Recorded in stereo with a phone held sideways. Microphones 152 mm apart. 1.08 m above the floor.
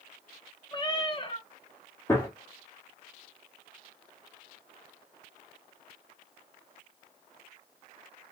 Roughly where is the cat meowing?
Left.